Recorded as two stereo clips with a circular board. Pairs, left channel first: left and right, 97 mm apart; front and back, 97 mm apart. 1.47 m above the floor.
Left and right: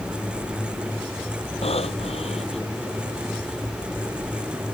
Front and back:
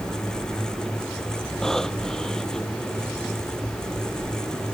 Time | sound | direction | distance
1.6 | breathing | 85° left | ?